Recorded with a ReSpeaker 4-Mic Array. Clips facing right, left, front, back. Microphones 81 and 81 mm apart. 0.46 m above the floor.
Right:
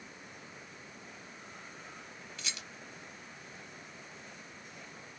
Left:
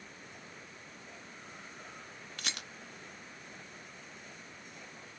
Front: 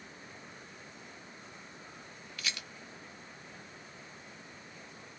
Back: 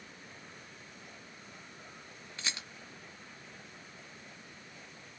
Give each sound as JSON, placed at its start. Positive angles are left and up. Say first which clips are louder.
{"t": 2.4, "sound": "a rattle", "louder": "left 3 dB, even", "azimuth_deg": 120, "distance_m": 0.7}